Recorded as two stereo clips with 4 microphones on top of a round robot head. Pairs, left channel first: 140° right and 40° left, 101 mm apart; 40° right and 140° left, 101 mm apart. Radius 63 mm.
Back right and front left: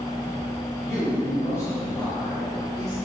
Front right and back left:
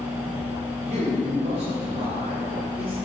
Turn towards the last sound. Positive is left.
turn(degrees=170)